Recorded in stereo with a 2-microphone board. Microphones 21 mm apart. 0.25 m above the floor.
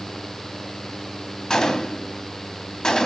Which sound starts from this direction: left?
A gunshot, at 1.5 s.